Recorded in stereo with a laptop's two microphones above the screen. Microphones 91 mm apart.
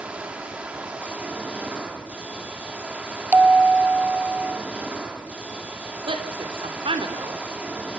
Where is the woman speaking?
70° right (ahead or behind), 3.5 m.